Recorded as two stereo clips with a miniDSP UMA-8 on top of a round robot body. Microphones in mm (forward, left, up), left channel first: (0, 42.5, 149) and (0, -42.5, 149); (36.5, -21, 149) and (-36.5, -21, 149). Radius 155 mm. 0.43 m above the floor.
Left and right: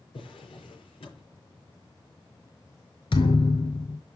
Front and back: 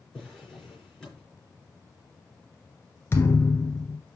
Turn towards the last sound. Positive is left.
turn(degrees=60)